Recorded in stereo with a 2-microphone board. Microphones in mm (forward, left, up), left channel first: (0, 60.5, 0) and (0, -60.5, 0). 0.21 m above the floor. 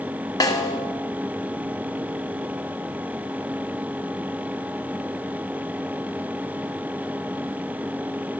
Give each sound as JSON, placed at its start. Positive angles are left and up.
{"t": 0.4, "sound": "a snare drum", "side_deg": 30, "distance_m": 1.6}